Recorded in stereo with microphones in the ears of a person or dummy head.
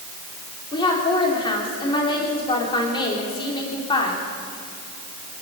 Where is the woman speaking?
25° left (ahead or behind), 3 m.